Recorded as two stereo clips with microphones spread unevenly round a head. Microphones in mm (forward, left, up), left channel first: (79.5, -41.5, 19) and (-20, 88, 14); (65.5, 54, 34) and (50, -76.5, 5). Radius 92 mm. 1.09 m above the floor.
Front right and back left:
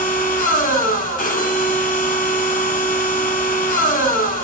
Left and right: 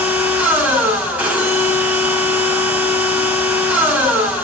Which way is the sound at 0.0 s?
20° right.